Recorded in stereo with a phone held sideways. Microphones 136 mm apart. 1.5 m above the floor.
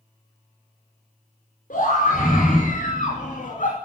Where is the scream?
90° left, 4.5 m; by 3.8 s 75° left (ahead or behind), 2.5 m.